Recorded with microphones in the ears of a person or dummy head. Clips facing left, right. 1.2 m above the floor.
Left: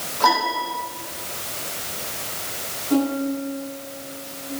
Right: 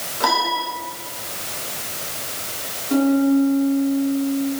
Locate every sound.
0.2 s a piano: 20° right (ahead or behind), 8 m
2.9 s a piano: 5° right (ahead or behind), 7.5 m